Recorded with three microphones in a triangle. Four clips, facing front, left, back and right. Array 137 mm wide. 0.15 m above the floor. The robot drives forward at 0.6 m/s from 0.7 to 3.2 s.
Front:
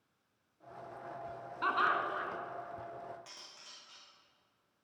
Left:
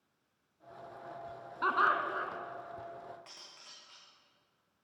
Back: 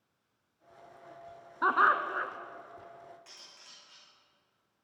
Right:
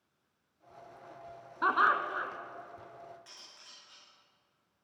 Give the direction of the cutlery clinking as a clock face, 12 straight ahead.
10 o'clock.